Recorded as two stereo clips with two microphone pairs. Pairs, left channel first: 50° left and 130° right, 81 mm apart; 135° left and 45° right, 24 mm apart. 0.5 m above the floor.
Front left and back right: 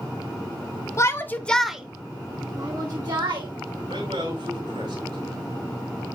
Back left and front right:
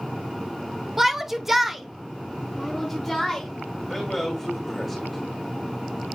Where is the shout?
40° left, 0.8 m; by 3.5 s 135° right, 1.4 m.